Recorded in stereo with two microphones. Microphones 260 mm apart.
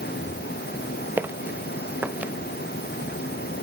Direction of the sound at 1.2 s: 5° right (ahead or behind).